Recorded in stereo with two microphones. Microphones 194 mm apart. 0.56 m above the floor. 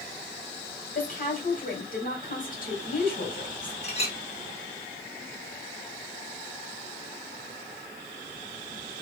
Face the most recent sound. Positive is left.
turn(degrees=35)  # may be behind; listen again after turning